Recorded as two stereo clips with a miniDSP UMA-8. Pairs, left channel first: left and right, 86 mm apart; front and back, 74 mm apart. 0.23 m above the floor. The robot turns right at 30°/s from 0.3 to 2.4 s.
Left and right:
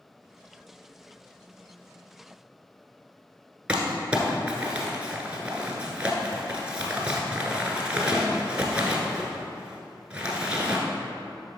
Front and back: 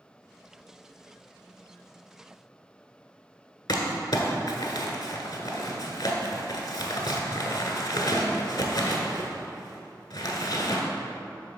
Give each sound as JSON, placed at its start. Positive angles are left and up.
{"t": 3.7, "sound": "crumpling", "azimuth_deg": -15, "distance_m": 1.2}